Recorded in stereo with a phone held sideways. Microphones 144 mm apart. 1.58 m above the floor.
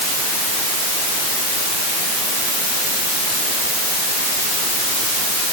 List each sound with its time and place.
Only background noise.